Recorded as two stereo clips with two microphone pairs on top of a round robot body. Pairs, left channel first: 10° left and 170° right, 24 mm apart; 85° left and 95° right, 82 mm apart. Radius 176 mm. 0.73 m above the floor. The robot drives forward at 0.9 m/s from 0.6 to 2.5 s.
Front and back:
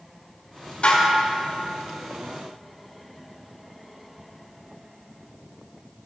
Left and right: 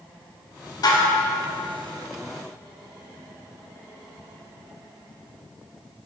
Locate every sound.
0.8 s dishes clattering: 50° left, 2.5 m; by 1.2 s 55° left, 2 m